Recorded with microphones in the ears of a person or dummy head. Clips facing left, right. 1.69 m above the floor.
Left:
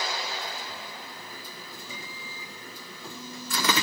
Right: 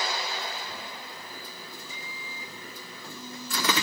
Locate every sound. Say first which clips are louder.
1.9 s a microwave: left 1 dB; 75° left (ahead or behind), 1.6 m